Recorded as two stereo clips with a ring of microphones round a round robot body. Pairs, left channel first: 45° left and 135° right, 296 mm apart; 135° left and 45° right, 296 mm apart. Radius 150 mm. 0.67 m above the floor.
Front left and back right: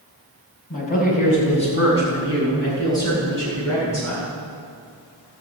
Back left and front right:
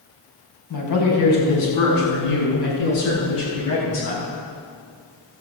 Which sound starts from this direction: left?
A man speaking, at 0.7 s.